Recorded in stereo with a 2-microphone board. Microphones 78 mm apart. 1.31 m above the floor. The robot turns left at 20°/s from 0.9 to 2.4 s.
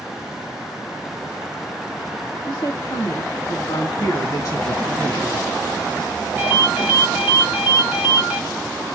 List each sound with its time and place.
2.5 s a woman speaking: 75° left (ahead or behind), 1.2 m
4.0 s a man speaking: 55° left (ahead or behind), 1.3 m
6.4 s a ringtone: 20° right (ahead or behind), 0.9 m